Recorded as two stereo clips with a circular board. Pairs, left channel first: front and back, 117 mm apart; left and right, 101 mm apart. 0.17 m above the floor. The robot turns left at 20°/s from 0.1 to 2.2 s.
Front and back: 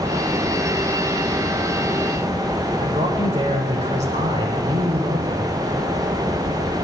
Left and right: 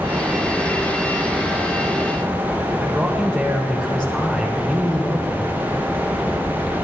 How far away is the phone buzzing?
I don't hear a phone buzzing.